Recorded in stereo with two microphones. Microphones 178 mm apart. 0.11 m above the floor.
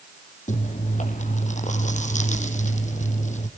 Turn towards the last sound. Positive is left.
turn(degrees=45)  # may be behind; listen again after turning